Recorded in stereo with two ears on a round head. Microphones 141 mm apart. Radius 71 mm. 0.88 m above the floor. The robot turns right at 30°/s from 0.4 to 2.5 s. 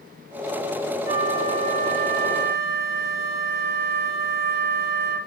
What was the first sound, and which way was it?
A flute, 155° right.